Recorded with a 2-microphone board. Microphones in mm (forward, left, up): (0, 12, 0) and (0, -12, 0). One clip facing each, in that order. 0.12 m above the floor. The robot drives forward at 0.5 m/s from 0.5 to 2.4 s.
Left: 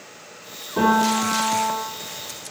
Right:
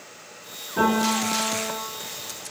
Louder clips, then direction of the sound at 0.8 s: Left 3 dB; 35° left (ahead or behind).